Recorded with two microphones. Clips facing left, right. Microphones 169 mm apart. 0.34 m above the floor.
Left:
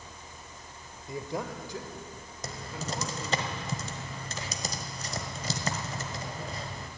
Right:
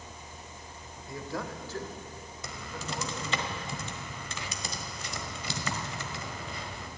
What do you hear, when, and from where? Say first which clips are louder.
1.1 s a man speaking: left 2 dB; 20° left (ahead or behind), 1.0 m; by 3.4 s 5° left (ahead or behind), 2.5 m
2.4 s typing on a keyboard: left 3 dB; 40° left (ahead or behind), 1.1 m